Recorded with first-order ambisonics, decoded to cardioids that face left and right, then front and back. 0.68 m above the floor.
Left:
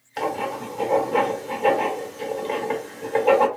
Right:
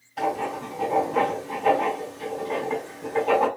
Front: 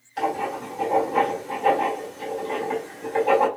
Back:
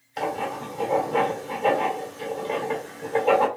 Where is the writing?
105° left, 1.7 m.